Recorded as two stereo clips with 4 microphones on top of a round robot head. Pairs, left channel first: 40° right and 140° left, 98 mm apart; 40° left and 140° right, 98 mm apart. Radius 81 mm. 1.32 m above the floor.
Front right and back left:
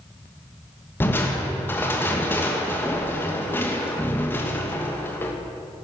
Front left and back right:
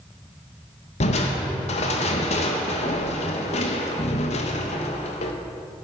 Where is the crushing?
30° left, 1.2 m.